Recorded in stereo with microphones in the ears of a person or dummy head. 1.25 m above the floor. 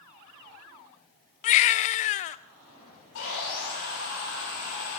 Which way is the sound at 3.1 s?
65° left (ahead or behind).